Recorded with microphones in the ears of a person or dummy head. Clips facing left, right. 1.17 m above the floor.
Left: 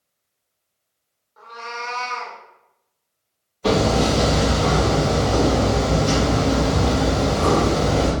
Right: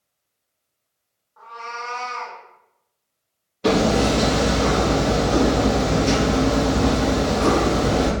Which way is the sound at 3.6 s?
40° right (ahead or behind).